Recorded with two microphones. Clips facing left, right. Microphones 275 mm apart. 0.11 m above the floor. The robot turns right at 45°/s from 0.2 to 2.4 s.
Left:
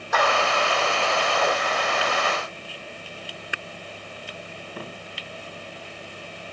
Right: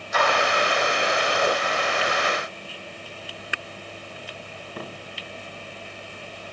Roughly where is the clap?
Left.